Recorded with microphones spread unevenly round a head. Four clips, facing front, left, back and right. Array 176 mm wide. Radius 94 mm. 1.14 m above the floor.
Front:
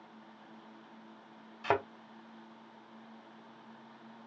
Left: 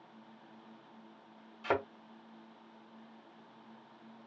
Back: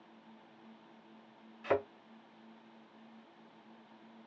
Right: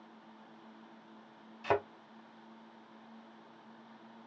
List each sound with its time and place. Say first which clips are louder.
1.6 s a thud: right 1 dB, front 1 dB; 5° right, 1.8 m